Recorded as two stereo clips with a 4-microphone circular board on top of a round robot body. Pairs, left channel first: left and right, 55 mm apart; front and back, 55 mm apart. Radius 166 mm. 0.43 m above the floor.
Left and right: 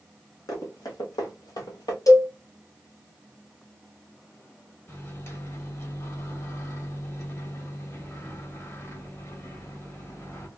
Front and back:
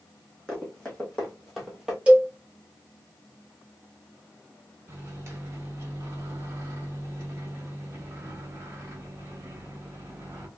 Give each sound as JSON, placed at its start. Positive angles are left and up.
{"t": 0.5, "sound": "running footsteps", "azimuth_deg": 85, "distance_m": 1.9}
{"t": 2.1, "sound": "a cowbell", "azimuth_deg": 105, "distance_m": 1.3}
{"t": 4.9, "sound": "a microwave", "azimuth_deg": 130, "distance_m": 1.5}